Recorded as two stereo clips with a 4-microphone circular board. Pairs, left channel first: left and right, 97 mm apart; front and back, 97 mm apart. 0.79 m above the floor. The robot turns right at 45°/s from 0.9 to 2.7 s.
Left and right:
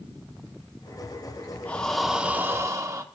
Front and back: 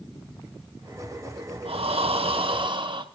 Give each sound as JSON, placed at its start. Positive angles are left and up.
{"t": 1.6, "sound": "breathing", "azimuth_deg": 165, "distance_m": 0.7}